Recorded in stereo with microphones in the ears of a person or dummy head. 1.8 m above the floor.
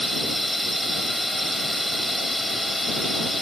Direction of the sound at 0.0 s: Centre (ahead or behind).